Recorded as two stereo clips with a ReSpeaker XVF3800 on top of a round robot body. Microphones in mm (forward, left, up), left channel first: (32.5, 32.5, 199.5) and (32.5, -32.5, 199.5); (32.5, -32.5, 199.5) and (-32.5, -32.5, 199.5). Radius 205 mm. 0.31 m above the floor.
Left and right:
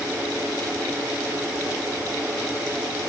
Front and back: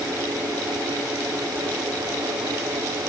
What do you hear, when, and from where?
Only background noise.